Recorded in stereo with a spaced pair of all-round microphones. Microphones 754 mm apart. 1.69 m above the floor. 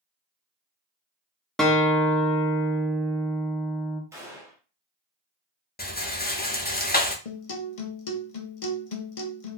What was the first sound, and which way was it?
A guitar, centre (ahead or behind).